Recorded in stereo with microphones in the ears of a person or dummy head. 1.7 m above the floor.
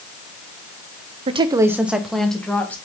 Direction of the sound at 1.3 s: 30° right (ahead or behind).